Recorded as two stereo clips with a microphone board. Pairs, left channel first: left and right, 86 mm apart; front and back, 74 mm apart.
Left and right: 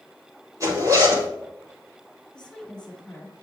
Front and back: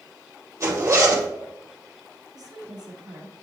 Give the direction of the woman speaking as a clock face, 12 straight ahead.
6 o'clock.